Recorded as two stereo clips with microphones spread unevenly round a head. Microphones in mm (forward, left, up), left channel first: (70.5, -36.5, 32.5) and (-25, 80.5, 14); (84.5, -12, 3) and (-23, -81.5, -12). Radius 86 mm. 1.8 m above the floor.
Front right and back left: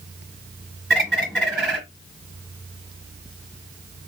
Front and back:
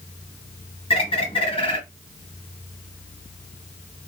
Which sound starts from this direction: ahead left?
A bird, at 0.9 s.